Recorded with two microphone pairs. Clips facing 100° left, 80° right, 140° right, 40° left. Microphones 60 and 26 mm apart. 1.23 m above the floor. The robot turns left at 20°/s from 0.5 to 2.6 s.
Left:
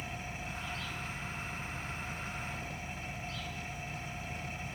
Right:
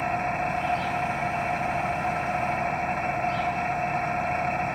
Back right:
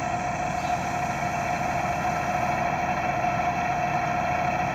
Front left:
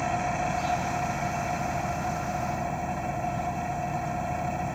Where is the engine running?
55° right; by 4.8 s 100° right.